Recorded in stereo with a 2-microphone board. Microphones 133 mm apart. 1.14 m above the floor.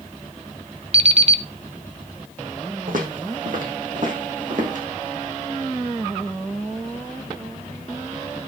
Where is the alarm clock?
45° right (ahead or behind), 0.8 m.